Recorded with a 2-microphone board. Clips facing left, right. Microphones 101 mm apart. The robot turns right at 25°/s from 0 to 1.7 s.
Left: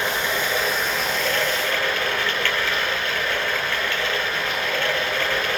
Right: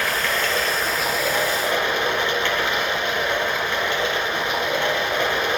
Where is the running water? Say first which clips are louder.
Right 1 dB; 160° left, 3.5 m; by 5.6 s 160° right, 3.5 m.